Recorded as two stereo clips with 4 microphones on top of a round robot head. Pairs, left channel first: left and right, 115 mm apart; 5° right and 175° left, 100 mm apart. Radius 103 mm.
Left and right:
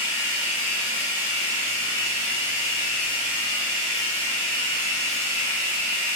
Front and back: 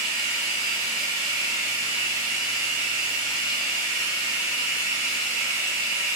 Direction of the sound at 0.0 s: 115° right.